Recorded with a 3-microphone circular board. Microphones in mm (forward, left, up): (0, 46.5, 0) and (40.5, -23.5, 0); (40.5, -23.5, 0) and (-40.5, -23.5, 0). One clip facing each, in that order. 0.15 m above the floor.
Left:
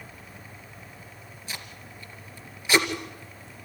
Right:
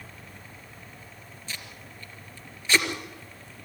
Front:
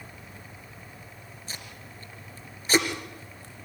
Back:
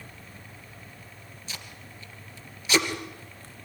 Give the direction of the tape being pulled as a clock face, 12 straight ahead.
10 o'clock.